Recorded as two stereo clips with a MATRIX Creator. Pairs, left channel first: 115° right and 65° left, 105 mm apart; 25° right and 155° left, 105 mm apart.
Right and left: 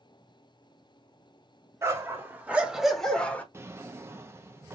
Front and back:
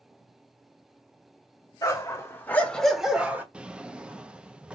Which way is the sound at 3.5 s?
90° left.